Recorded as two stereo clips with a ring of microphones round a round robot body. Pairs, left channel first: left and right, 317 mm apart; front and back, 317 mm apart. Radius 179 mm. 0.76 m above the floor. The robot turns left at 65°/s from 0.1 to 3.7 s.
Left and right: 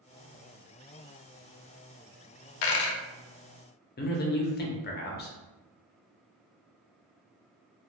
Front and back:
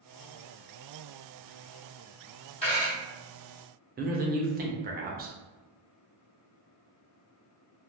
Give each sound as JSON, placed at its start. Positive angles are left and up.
{"t": 2.6, "sound": "a dropped coin", "azimuth_deg": 75, "distance_m": 0.5}
{"t": 4.0, "sound": "a man speaking", "azimuth_deg": 130, "distance_m": 0.5}